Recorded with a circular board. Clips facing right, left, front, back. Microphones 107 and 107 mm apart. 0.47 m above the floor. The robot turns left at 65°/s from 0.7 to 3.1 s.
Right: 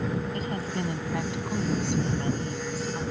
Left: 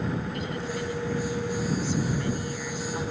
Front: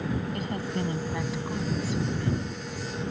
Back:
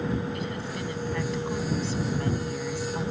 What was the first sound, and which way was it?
A woman speaking, 40° right.